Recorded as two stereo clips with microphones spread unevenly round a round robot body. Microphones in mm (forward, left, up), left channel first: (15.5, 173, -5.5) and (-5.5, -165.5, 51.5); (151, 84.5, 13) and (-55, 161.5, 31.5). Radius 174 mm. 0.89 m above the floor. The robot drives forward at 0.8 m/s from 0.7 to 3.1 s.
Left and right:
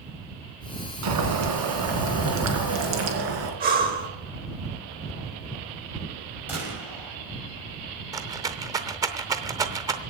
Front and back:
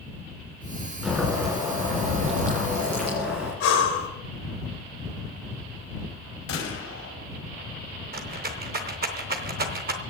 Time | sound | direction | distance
1.0 | boiling | 115° right | 2.5 m
3.6 | breathing | 30° right | 2 m
6.5 | a gunshot | 10° right | 5.5 m
8.1 | a rattle | 165° right | 0.7 m